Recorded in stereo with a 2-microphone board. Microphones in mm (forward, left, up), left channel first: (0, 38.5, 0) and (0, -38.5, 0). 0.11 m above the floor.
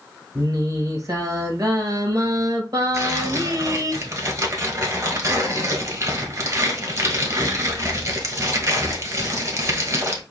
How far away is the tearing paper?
About 1.4 m.